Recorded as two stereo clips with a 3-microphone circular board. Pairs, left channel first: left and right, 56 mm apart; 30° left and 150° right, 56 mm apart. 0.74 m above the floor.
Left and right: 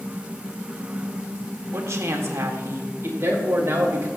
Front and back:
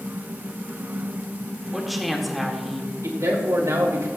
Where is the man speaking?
130° right, 3 m.